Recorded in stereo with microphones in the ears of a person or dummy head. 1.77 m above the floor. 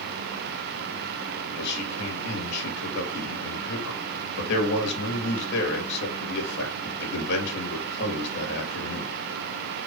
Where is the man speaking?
60° left (ahead or behind), 3 m.